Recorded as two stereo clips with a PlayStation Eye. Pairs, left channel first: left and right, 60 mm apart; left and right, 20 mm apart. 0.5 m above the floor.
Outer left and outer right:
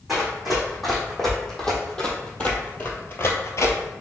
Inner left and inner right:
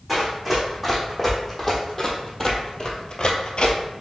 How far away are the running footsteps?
About 2.0 m.